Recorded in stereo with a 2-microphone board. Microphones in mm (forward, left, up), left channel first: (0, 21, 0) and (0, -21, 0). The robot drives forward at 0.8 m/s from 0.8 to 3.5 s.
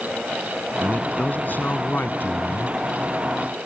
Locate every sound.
0.8 s a man speaking: 40° left (ahead or behind); by 2.8 s 50° left (ahead or behind)